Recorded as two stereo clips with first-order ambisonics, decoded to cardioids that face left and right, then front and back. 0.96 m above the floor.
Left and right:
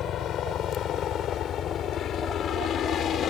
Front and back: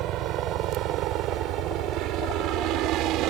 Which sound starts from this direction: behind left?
A helicopter, at 0.0 s.